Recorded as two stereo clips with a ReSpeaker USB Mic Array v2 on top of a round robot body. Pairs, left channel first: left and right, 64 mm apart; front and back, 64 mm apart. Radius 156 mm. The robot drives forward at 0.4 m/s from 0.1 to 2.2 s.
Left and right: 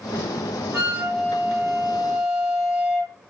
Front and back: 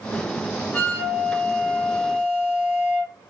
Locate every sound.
0.7 s a flute: 55° right, 0.9 m; by 3.1 s 105° right, 0.8 m